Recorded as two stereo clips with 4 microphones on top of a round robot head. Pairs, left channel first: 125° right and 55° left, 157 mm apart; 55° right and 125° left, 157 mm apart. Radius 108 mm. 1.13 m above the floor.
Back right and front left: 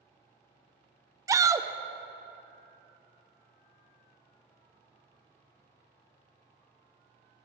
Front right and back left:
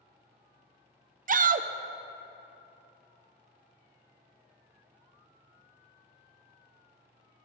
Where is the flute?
No flute in this recording.